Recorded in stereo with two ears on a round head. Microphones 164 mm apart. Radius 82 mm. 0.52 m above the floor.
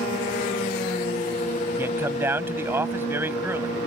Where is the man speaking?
10° right (ahead or behind).